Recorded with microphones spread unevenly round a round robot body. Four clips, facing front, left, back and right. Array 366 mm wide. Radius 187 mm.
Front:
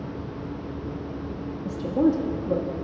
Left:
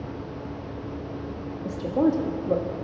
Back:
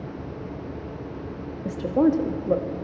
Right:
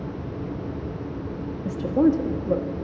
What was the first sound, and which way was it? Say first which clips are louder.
A woman speaking: right 3 dB, back 2 dB; 105° right.